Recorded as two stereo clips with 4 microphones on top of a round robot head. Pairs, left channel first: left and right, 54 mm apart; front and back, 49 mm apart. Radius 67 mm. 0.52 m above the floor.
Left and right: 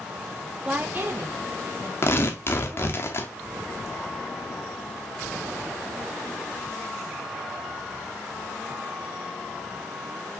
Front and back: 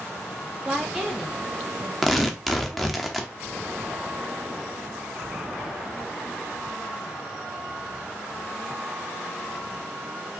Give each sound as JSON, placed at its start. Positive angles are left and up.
{"t": 0.7, "sound": "a woman speaking", "azimuth_deg": -125, "distance_m": 0.7}
{"t": 2.0, "sound": "tearing paper", "azimuth_deg": 90, "distance_m": 0.9}